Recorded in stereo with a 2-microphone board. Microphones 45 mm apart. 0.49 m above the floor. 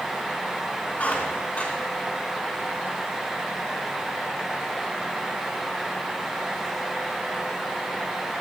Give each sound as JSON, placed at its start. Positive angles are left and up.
{"t": 1.0, "sound": "a squeak", "side_deg": 35, "distance_m": 3.0}